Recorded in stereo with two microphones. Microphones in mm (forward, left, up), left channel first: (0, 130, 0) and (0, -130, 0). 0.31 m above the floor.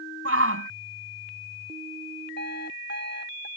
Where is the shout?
60° right (ahead or behind).